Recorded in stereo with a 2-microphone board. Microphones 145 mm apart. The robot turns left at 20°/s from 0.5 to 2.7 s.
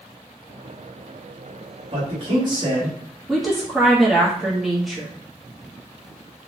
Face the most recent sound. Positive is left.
turn(degrees=0)  # may be behind; listen again after turning